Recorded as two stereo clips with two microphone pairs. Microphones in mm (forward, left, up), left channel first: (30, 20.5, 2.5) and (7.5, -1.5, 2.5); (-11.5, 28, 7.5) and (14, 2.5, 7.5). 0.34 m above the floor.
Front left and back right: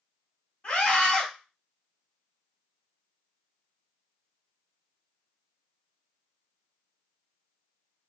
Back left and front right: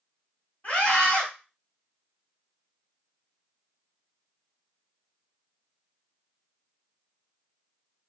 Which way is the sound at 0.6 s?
100° left.